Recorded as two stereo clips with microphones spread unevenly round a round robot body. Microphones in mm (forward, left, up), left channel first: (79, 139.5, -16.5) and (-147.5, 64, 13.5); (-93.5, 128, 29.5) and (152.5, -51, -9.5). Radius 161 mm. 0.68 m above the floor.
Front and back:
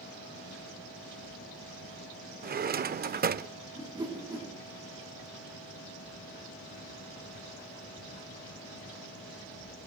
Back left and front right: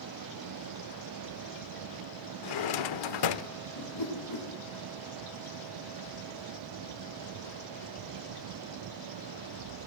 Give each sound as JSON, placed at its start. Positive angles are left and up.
{"t": 2.4, "sound": "a drawer", "azimuth_deg": 145, "distance_m": 0.8}
{"t": 3.8, "sound": "a whoosh", "azimuth_deg": 125, "distance_m": 8.0}